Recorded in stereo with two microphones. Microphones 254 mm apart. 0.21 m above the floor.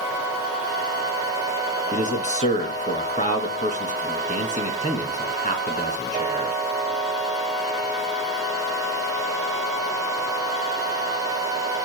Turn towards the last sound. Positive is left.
turn(degrees=30)  # may be behind; listen again after turning